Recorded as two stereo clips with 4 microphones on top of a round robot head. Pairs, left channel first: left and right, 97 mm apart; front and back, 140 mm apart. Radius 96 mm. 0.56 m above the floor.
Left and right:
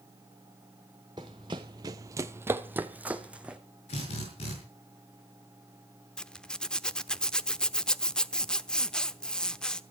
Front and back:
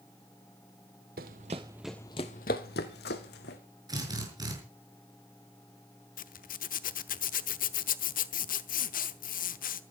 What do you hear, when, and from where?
1.2 s running footsteps: 155° right, 0.9 m; by 3.6 s 10° right, 1.7 m
3.9 s a drill: 120° left, 6 m
6.2 s a zipper: 10° left, 0.9 m